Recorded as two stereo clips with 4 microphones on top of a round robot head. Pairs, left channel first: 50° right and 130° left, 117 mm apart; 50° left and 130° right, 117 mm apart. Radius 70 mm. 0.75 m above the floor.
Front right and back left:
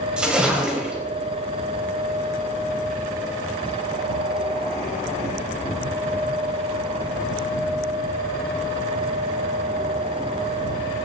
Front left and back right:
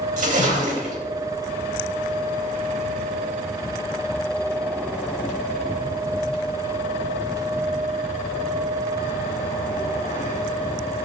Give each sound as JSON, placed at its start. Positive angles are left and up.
{"t": 0.2, "sound": "a splash", "azimuth_deg": -150, "distance_m": 4.0}